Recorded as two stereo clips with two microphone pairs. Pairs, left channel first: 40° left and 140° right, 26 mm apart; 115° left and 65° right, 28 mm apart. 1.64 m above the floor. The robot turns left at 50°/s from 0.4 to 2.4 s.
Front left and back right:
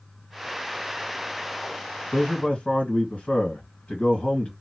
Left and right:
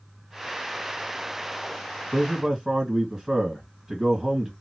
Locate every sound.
2.1 s a man speaking: 25° left, 1.9 m; by 4.5 s 10° left, 1.9 m